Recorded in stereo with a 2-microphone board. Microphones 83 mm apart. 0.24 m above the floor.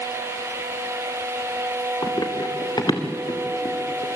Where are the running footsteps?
55° left (ahead or behind), 3 m; by 4.1 s 60° left (ahead or behind), 4.5 m.